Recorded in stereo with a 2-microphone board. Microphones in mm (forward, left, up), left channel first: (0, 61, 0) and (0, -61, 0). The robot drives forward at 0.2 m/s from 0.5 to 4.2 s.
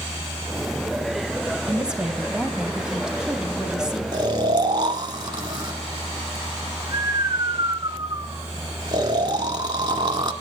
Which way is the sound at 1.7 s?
5° right (ahead or behind).